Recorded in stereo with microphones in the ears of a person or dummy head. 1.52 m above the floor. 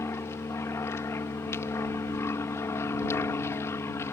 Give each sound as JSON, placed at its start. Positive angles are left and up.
{"t": 0.0, "sound": "an aircraft", "side_deg": 15}